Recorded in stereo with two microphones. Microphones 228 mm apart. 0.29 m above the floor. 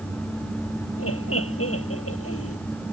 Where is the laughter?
80° left.